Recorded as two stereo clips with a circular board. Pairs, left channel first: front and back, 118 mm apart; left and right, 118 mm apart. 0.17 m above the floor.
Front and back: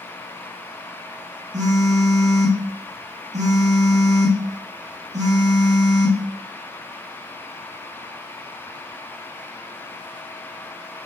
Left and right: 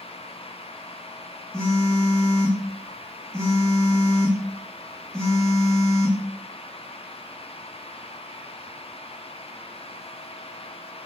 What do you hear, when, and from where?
1.5 s a phone buzzing: 175° left, 1.7 m